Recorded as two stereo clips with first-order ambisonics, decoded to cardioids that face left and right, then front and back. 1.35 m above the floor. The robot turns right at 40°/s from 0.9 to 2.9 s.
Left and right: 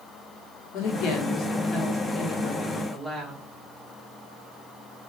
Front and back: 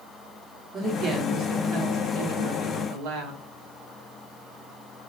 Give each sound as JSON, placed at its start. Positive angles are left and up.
{"t": 0.7, "sound": "a woman speaking", "azimuth_deg": 110, "distance_m": 1.0}